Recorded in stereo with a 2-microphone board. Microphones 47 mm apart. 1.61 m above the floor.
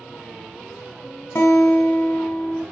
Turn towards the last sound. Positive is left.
turn(degrees=65)  # may be behind; listen again after turning